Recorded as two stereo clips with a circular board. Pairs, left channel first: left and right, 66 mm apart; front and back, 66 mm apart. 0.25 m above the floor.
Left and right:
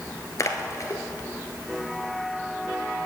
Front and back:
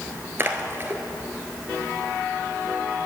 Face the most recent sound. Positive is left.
turn(degrees=130)